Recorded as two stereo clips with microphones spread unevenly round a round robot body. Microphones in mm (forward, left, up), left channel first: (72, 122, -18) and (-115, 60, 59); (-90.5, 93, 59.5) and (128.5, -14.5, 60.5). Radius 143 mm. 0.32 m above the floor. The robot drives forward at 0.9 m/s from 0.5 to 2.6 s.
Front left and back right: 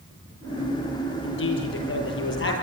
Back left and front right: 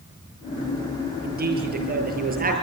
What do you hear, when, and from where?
1.2 s a man speaking: 25° left, 8.5 m; by 2.5 s 30° left, 7.5 m